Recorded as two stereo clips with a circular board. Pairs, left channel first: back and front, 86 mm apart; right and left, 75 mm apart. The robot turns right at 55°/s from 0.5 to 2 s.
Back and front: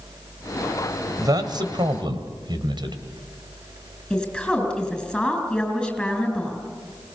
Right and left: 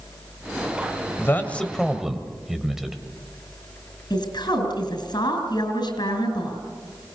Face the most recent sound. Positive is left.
turn(degrees=-95)